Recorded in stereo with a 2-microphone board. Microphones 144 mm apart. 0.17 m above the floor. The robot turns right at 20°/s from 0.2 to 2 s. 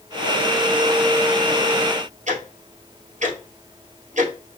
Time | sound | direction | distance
2.3 | ticking | 60° right (ahead or behind) | 1.8 m